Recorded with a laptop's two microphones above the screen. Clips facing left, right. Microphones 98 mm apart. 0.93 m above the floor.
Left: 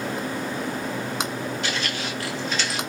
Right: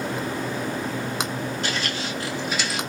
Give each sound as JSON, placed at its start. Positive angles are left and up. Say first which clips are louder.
{"t": 1.6, "sound": "footsteps", "louder": "even", "side_deg": -40, "distance_m": 1.2}